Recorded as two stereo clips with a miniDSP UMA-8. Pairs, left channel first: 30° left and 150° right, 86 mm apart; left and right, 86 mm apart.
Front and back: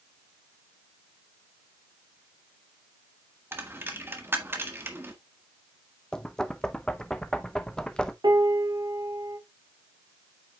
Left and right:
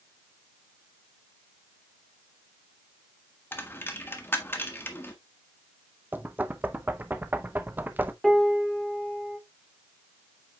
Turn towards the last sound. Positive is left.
turn(degrees=180)